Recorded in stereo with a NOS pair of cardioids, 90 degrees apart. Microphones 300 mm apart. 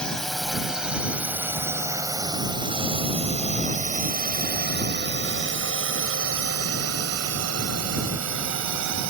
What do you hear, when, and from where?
0.0 s a drone: straight ahead; by 9.1 s 70° right